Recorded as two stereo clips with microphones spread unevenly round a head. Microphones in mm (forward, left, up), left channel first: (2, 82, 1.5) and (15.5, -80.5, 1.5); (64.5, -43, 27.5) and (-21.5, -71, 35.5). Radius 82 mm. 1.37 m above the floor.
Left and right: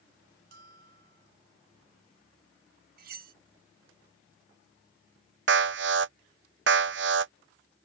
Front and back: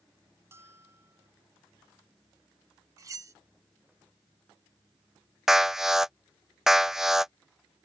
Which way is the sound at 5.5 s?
75° right.